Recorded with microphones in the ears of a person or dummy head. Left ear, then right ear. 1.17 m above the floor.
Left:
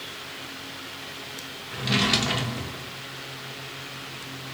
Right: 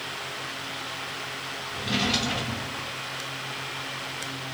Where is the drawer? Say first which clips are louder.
Left 3 dB; 35° left (ahead or behind), 0.9 m.